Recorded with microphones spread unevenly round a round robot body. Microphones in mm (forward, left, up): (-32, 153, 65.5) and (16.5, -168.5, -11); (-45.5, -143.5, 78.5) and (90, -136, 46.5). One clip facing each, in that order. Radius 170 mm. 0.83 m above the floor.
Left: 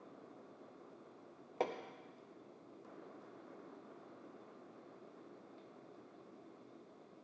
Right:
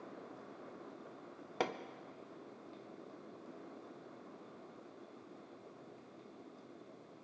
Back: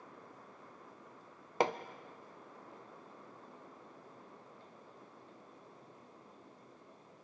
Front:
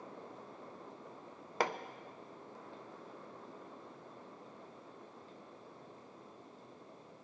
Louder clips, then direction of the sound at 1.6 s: Even, back 3 dB; 100° right.